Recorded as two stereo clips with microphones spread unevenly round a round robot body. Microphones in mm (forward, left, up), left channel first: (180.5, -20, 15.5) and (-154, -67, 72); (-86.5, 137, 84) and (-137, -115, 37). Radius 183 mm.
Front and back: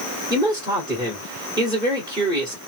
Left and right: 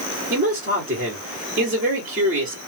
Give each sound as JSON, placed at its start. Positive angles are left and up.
{"t": 0.3, "sound": "a man speaking", "azimuth_deg": -90, "distance_m": 1.7}